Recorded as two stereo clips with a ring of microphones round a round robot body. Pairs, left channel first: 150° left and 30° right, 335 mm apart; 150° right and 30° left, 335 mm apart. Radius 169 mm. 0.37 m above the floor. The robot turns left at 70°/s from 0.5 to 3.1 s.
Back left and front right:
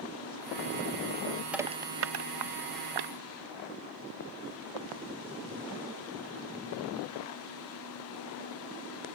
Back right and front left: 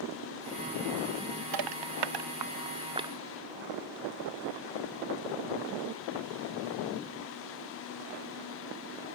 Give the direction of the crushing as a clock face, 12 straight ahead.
10 o'clock.